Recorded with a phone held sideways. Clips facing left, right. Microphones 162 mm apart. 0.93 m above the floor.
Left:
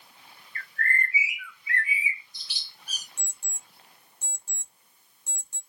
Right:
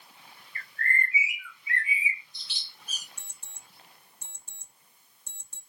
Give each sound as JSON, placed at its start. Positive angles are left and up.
{"t": 0.6, "sound": "a bird", "side_deg": -25, "distance_m": 1.2}
{"t": 3.2, "sound": "an alarm clock", "side_deg": 15, "distance_m": 1.6}